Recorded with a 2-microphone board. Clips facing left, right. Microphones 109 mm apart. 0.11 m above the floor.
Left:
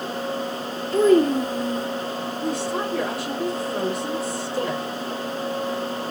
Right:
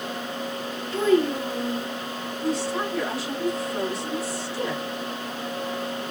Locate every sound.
0.9 s a child speaking: 45° left (ahead or behind), 1.2 m
2.4 s a woman speaking: 60° left (ahead or behind), 3 m